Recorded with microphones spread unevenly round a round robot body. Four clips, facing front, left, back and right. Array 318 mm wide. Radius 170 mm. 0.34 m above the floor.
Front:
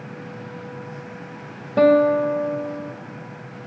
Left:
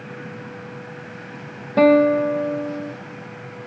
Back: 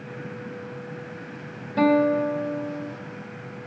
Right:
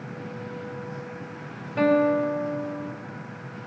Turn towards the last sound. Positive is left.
turn(degrees=35)